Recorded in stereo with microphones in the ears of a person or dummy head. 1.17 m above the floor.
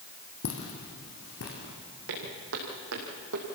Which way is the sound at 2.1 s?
75° right (ahead or behind).